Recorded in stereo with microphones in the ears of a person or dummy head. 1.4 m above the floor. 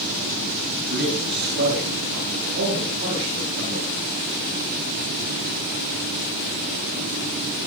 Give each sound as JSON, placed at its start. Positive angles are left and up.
{"t": 0.9, "sound": "a man speaking", "side_deg": -55, "distance_m": 9.0}